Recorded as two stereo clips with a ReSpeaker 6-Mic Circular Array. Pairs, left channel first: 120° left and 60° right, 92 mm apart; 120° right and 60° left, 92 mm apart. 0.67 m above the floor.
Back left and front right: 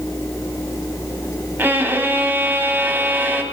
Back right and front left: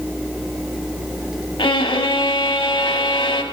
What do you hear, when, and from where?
1.6 s a violin: 125° right, 0.9 m